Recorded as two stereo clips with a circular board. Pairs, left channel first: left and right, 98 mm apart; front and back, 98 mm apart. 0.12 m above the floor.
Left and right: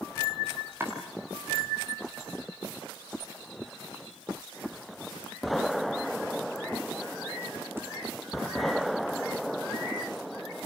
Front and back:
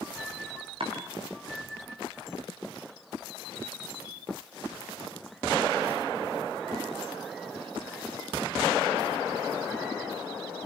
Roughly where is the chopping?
Behind right.